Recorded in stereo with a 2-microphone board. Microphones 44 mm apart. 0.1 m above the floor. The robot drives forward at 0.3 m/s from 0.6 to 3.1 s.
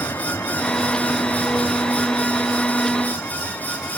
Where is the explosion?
No explosion in this recording.